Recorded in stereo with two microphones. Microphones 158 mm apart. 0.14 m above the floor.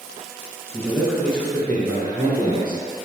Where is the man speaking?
10° right (ahead or behind), 1.4 m; by 3.0 s 30° left (ahead or behind), 2.5 m.